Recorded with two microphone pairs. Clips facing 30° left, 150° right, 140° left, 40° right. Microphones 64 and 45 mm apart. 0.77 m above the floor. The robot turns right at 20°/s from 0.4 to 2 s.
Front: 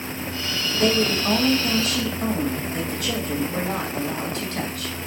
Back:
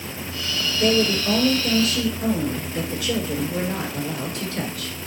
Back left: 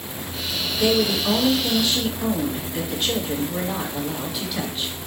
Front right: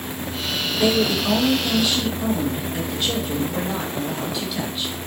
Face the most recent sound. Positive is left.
turn(degrees=50)